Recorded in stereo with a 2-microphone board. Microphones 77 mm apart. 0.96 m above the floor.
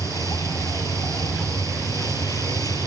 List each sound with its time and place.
0.0 s a vehicle: 50° left (ahead or behind)